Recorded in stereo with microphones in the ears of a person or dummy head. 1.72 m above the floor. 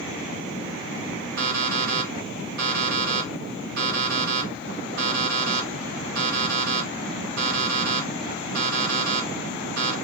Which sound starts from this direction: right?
An alarm clock, at 1.4 s.